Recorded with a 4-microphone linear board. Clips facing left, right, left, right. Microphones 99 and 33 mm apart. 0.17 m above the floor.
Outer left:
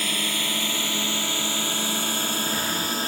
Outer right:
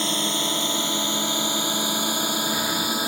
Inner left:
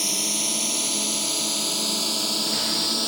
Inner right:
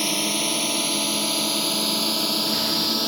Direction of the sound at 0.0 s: 25° right (ahead or behind).